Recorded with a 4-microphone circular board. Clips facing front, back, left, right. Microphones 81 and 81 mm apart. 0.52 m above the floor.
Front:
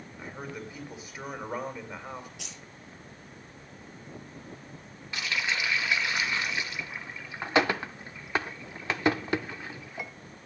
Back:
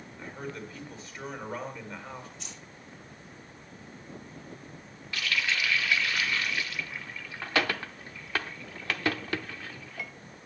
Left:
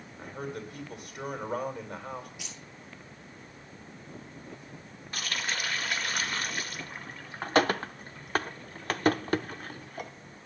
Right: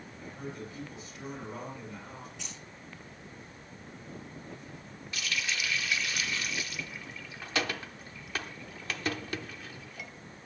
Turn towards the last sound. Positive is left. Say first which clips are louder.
# even, left 1 dB
turn(degrees=65)